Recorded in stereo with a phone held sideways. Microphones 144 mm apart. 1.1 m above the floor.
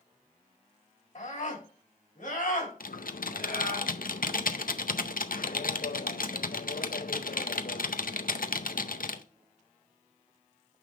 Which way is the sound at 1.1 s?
55° left (ahead or behind).